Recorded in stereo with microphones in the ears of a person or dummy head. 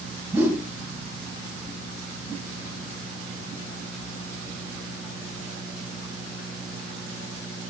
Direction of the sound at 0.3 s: 15° right (ahead or behind).